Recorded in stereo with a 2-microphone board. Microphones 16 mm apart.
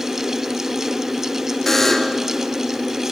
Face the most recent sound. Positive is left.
turn(degrees=15)  # may be behind; listen again after turning